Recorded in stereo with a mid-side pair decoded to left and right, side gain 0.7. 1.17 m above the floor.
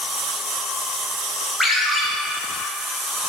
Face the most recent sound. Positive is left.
turn(degrees=0)